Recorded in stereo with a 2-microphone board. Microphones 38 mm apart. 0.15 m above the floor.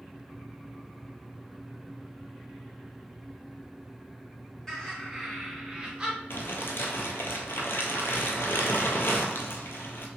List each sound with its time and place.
4.7 s laughter: 10° left (ahead or behind), 1.8 m; by 6.2 s 25° right (ahead or behind), 1.8 m
6.3 s crumpling: 75° left (ahead or behind), 0.7 m